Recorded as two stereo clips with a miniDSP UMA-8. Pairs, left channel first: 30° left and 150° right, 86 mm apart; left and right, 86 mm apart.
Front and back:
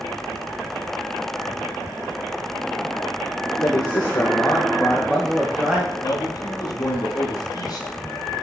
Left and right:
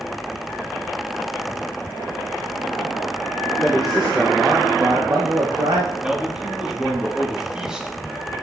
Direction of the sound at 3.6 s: 5° left.